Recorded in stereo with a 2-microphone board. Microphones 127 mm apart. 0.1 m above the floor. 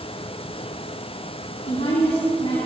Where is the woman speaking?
55° left (ahead or behind), 4 m.